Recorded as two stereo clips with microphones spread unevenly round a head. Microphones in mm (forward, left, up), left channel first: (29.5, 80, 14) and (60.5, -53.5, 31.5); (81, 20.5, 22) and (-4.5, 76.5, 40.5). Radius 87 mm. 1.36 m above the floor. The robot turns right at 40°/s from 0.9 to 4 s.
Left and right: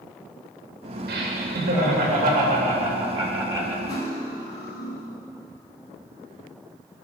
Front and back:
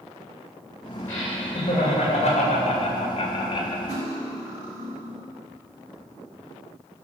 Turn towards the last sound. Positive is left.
turn(degrees=180)